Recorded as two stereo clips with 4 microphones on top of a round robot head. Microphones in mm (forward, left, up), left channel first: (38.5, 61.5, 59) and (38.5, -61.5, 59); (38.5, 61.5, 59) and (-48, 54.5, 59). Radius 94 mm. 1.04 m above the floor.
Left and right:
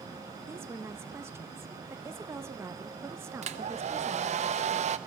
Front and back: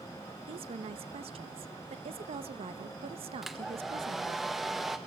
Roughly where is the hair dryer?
Right.